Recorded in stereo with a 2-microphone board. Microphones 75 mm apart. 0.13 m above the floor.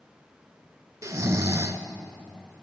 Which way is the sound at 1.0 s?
45° right (ahead or behind).